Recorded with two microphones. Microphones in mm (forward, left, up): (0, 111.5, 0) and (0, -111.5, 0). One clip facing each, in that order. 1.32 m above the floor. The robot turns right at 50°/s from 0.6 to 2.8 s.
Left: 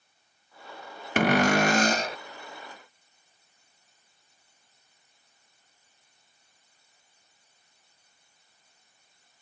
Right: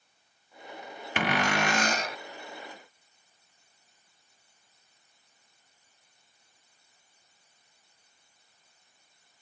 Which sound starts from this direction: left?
A cupboard door, at 1.2 s.